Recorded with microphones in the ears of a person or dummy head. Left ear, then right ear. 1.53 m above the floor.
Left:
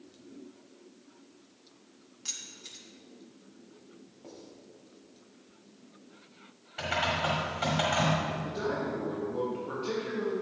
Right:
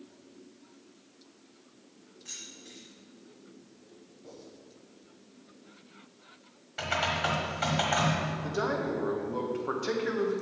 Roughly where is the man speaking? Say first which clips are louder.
Right 2 dB; right.